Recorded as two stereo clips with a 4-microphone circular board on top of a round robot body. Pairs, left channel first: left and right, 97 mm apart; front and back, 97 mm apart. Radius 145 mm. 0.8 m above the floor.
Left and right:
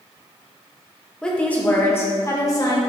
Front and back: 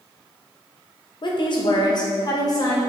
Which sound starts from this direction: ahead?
A woman speaking, at 1.2 s.